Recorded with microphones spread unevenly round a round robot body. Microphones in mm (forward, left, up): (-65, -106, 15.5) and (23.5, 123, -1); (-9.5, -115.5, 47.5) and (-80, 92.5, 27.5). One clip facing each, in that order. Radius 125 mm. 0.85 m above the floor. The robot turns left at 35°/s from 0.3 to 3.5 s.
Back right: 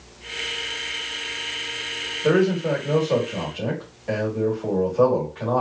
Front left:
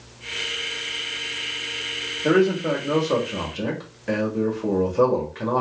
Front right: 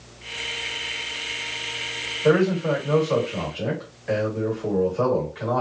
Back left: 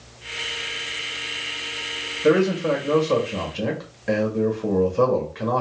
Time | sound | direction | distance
2.2 | a man speaking | 165° left | 1.6 m